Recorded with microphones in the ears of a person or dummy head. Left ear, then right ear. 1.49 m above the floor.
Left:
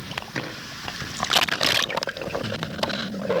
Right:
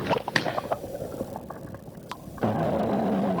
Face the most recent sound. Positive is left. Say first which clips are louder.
# right 5 dB
turn(degrees=-80)